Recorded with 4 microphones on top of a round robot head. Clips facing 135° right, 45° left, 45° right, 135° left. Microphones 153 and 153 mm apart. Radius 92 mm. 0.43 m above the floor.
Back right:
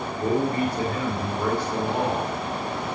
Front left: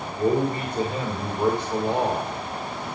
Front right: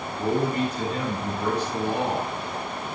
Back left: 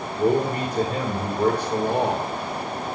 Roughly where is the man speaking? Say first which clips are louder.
Front left 1 dB, back left 3 dB; left.